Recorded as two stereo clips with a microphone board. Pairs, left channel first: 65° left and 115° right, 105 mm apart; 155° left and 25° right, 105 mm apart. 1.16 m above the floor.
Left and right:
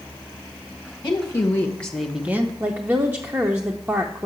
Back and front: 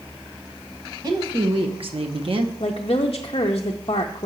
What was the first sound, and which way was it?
A woman speaking, 15° left.